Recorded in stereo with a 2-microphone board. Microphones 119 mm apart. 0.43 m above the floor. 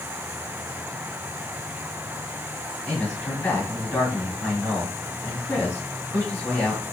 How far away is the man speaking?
About 6 m.